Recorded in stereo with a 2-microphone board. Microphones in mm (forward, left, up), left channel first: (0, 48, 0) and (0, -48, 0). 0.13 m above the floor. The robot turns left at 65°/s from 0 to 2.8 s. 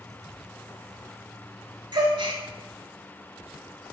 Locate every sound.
1.9 s a gasp: 50° right (ahead or behind), 0.6 m; by 2.4 s 55° right (ahead or behind), 0.6 m